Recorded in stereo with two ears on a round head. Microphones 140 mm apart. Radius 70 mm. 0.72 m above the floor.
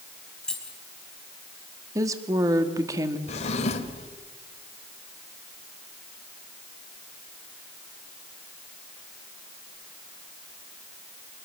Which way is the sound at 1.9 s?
20° right (ahead or behind).